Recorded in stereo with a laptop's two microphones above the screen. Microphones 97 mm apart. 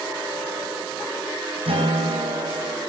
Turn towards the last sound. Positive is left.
turn(degrees=-85)